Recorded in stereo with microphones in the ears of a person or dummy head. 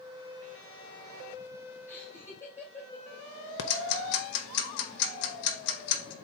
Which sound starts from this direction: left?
Ticking, at 3.6 s.